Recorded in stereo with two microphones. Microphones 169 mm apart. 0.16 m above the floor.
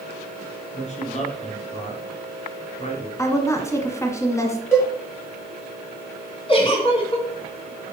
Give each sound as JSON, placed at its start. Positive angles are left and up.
{"t": 0.7, "sound": "a man speaking", "side_deg": 40, "distance_m": 2.0}
{"t": 3.2, "sound": "a woman speaking", "side_deg": 15, "distance_m": 1.1}
{"t": 4.7, "sound": "a cowbell", "side_deg": 15, "distance_m": 3.5}
{"t": 6.5, "sound": "a giggle", "side_deg": 30, "distance_m": 3.0}